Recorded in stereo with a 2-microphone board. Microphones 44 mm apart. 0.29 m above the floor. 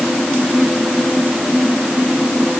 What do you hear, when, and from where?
Only background noise.